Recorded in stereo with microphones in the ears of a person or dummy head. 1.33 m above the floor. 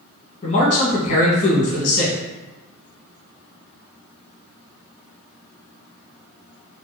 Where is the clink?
I don't hear a clink.